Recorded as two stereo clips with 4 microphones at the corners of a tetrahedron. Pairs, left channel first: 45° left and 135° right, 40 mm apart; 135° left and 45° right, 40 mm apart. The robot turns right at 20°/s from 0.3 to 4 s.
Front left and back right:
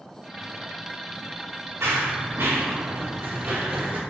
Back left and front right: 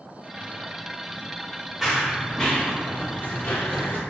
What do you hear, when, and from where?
1.8 s running footsteps: 135° right, 1.3 m; by 4.0 s straight behind, 1.5 m